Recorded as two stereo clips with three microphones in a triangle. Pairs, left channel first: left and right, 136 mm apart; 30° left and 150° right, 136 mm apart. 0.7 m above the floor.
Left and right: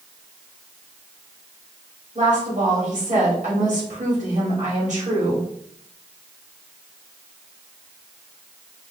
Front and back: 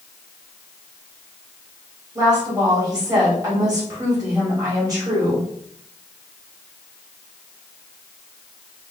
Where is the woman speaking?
90° right, 2.5 m.